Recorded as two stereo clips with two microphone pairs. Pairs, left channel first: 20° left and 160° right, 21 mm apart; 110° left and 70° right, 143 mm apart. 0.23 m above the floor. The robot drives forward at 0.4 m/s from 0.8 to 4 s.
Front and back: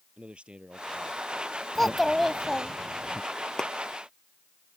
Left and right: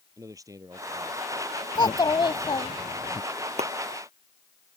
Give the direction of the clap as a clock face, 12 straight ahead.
1 o'clock.